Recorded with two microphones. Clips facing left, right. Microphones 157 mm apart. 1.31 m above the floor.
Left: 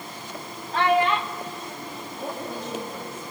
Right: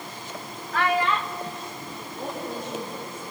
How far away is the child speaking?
About 0.9 m.